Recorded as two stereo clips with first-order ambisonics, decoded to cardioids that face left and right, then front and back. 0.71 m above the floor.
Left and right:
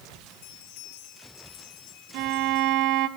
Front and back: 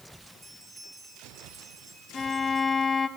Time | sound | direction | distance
0.3 | a bell | 90° left | 5 m
2.1 | a violin | 75° right | 1.3 m